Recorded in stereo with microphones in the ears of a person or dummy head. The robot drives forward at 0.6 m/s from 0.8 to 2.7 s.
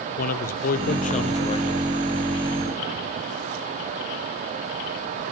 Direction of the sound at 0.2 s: 50° left (ahead or behind).